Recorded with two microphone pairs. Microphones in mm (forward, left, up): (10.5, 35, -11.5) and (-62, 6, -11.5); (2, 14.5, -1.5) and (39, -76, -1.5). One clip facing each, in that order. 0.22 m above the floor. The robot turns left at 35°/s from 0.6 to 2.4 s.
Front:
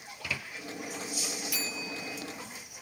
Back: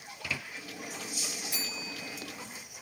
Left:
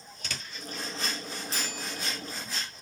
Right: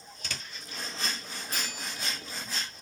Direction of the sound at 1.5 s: 100° right.